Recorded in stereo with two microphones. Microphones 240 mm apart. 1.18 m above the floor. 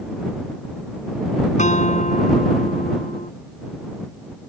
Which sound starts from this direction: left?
A guitar, at 1.6 s.